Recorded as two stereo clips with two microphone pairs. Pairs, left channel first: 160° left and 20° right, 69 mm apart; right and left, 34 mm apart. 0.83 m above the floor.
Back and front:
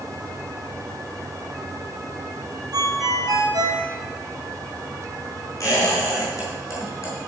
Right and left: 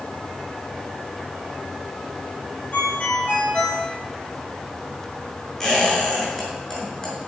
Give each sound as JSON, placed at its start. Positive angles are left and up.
{"t": 2.7, "sound": "a ringtone", "azimuth_deg": -40, "distance_m": 3.0}
{"t": 5.6, "sound": "a squeak", "azimuth_deg": -160, "distance_m": 6.5}